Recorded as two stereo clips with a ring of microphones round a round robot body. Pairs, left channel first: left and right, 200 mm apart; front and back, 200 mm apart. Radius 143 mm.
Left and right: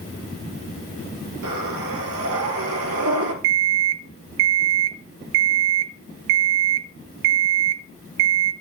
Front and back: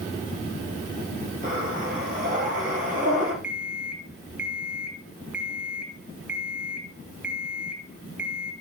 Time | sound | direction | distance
1.4 | breathing | 115° right | 1.7 m
3.4 | an alarm clock | 95° right | 0.7 m